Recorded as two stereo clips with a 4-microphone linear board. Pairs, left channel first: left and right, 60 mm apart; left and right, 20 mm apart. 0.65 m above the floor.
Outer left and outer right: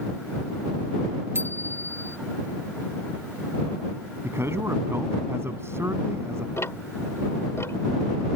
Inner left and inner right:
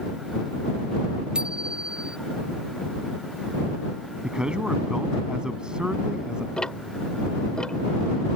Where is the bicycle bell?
45° right (ahead or behind).